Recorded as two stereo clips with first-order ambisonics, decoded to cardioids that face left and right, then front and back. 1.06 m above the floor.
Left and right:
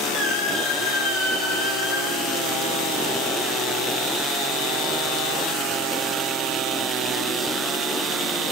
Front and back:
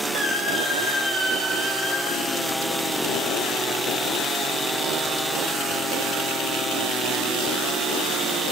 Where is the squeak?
85° left, 7 m.